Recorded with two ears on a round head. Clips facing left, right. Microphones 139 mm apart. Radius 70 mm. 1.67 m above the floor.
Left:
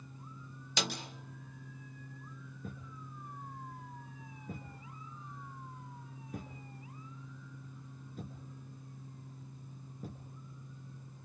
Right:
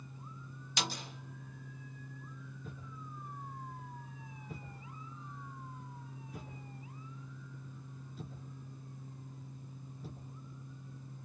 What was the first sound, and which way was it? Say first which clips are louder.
A snare drum: left 2 dB; 75° left (ahead or behind).